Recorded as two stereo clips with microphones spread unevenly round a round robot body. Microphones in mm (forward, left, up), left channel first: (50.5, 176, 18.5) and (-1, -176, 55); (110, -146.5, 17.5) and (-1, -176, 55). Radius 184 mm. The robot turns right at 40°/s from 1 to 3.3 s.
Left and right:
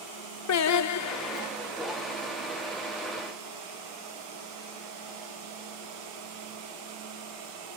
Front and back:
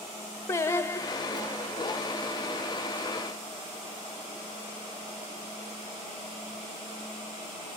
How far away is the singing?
About 0.7 m.